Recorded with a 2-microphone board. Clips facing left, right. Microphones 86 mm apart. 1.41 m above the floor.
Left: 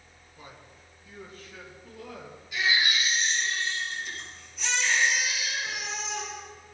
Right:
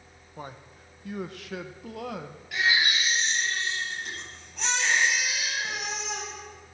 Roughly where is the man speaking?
Right.